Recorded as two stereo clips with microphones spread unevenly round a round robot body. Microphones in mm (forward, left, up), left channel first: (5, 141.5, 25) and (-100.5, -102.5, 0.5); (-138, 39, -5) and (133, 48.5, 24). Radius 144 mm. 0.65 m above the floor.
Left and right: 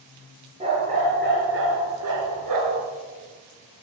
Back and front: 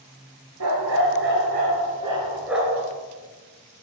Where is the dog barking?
40° right, 3.5 m; by 2.9 s 95° right, 2.5 m.